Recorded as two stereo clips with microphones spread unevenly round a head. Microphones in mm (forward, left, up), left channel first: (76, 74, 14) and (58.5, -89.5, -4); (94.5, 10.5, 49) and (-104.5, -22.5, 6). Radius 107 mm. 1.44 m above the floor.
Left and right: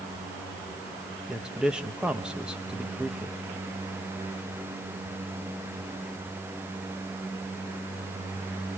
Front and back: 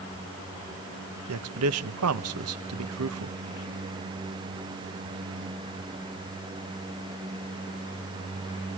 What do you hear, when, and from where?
1.3 s a man speaking: 175° left, 1.0 m